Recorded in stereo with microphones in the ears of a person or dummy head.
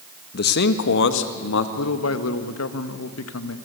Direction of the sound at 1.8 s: 80° left.